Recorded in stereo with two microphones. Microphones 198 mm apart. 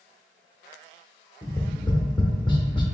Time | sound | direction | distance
1.4 | tapping | 25° left (ahead or behind) | 0.6 m